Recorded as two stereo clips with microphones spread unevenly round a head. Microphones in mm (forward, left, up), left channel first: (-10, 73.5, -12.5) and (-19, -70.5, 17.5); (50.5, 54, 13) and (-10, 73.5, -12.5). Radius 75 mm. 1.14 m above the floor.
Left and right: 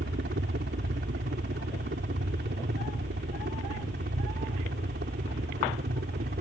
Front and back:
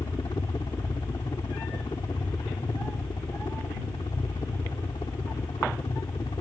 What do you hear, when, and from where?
0.0 s a helicopter: 70° right; by 6.4 s 65° right